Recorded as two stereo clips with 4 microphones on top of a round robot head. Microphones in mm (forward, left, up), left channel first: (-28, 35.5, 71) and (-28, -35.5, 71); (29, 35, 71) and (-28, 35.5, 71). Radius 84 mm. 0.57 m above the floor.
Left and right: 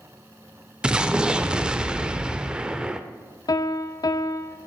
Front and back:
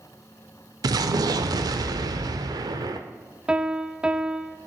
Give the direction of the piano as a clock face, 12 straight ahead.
8 o'clock.